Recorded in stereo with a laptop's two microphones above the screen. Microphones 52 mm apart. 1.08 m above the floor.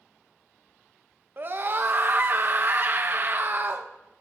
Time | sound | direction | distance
1.4 | a scream | 45° right (ahead or behind) | 0.6 m